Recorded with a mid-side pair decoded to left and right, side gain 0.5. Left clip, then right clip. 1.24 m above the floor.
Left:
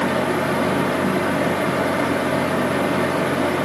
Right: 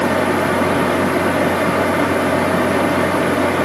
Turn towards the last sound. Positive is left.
turn(degrees=-30)